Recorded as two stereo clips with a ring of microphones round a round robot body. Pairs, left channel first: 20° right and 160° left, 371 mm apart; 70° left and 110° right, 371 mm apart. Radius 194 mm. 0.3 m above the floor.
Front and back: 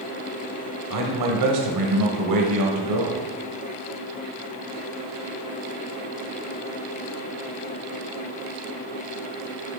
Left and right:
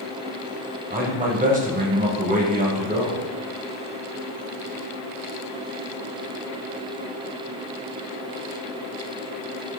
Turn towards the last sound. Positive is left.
turn(degrees=180)